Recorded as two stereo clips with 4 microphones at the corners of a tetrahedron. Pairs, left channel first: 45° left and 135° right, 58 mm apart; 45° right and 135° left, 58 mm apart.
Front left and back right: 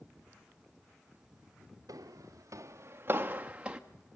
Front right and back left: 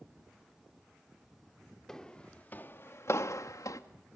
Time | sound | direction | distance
1.9 | footsteps | 130° right | 1.3 m